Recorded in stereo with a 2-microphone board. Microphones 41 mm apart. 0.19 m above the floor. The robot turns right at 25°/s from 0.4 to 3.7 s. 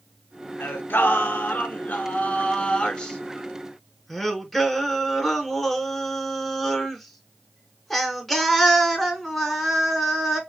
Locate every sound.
0.6 s singing: 100° left, 0.6 m; by 10.4 s 175° left, 0.6 m